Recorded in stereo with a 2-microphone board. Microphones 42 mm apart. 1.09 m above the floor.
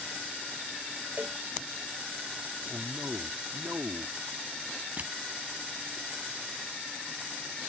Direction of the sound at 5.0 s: 40° right (ahead or behind).